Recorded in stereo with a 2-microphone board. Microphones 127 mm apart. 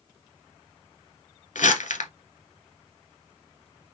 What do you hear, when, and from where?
1.6 s crumpling: 85° left, 0.9 m